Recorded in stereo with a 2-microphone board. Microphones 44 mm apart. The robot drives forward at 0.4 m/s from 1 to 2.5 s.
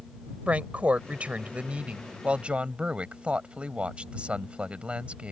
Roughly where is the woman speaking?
Right.